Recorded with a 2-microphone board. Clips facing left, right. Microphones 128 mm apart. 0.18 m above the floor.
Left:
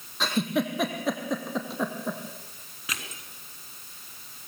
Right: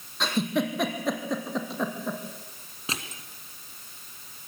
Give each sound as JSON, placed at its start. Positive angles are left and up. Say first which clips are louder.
{"t": 0.2, "sound": "a giggle", "louder": "even", "side_deg": 0, "distance_m": 3.0}
{"t": 2.9, "sound": "crushing", "louder": "right 3 dB", "side_deg": -30, "distance_m": 2.5}